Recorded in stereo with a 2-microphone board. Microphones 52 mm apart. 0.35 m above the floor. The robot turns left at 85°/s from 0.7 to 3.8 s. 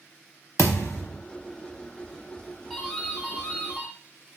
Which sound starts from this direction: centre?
A doorbell, at 2.7 s.